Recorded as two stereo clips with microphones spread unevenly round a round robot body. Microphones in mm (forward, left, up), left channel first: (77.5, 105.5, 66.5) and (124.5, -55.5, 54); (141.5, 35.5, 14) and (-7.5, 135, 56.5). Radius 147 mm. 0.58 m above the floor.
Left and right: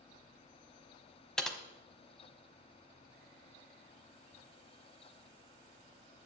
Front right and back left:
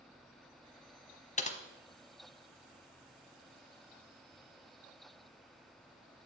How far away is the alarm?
I don't hear an alarm.